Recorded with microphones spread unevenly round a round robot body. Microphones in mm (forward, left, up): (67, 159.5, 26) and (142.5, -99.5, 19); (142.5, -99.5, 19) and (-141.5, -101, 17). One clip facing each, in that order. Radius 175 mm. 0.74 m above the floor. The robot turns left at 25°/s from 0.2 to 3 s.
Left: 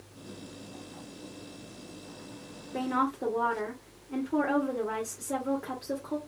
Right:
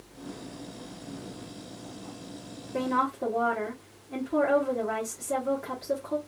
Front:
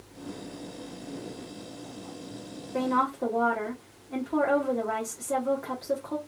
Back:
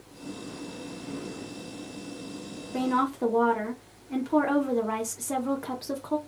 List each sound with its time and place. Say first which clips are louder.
2.7 s a woman speaking: right 1 dB, back 1 dB; 160° right, 1.0 m; by 6.2 s 170° right, 1.0 m